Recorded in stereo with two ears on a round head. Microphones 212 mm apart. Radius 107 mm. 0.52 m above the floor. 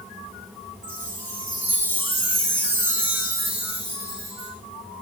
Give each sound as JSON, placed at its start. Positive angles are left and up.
{"t": 0.8, "sound": "a chime", "side_deg": -10, "distance_m": 7.0}